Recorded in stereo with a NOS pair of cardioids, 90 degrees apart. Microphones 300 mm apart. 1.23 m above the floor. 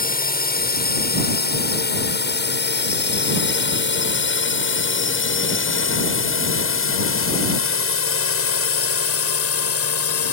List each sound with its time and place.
0.0 s a drone: 30° left; by 10.3 s 55° left